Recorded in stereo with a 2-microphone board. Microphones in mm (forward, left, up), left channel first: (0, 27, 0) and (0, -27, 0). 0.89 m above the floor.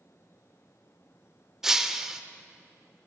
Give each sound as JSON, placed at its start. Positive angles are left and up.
{"t": 1.6, "sound": "breaking glass", "side_deg": -5, "distance_m": 0.6}